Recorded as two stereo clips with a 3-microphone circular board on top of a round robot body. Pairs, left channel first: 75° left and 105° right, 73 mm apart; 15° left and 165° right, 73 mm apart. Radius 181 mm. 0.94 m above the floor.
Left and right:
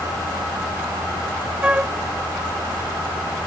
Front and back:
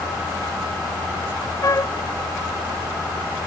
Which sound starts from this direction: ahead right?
A flute, at 1.6 s.